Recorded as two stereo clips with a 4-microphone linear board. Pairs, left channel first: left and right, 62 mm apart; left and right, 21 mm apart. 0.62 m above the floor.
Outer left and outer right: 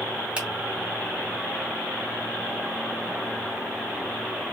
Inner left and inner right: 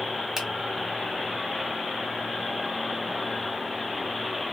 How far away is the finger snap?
About 1.8 m.